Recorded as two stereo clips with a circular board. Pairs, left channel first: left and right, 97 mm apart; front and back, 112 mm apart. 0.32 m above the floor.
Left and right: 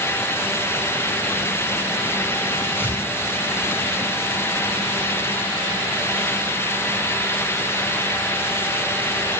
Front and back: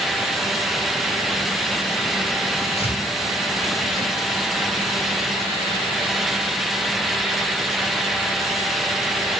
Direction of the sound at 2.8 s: 25° left.